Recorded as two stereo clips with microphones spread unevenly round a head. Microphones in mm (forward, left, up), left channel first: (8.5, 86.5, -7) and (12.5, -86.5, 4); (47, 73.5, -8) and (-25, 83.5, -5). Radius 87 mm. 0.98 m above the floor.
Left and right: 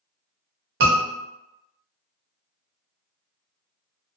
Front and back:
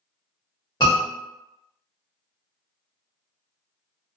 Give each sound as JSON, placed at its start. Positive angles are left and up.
{"t": 0.8, "sound": "a scream", "azimuth_deg": -75, "distance_m": 1.2}